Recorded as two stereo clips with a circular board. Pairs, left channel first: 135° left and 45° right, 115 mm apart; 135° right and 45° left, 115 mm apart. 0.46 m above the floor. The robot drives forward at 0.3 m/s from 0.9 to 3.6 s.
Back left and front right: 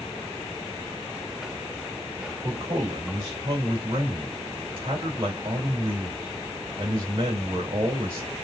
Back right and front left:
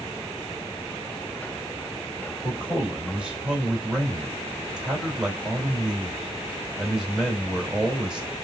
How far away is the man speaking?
About 2 m.